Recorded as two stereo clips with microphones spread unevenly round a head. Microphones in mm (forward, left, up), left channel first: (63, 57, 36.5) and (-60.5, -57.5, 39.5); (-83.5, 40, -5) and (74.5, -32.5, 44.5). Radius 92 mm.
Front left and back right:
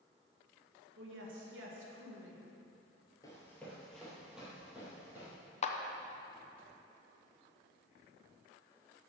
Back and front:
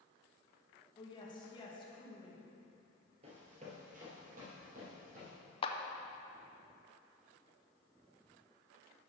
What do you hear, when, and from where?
1.0 s a woman speaking: 140° right, 1.6 m
3.2 s running footsteps: 25° right, 1.8 m; by 5.3 s 60° right, 3.5 m
5.6 s a clap: 95° left, 0.6 m